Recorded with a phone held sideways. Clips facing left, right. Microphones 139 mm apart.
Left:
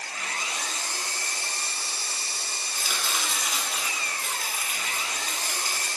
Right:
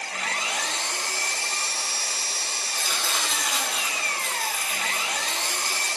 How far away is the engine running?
About 0.9 m.